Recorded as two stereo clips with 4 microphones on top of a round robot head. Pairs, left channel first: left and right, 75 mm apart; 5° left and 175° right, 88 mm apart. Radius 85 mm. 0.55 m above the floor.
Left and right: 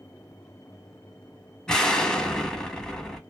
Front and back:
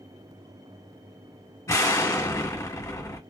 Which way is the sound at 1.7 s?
15° left.